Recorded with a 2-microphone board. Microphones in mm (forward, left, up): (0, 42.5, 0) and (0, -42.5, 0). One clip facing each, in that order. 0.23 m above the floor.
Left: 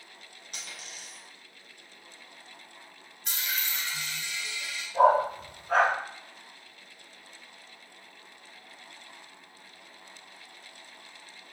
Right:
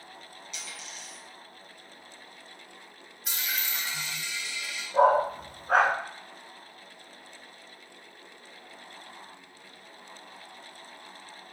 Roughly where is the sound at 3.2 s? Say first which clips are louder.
Even; centre.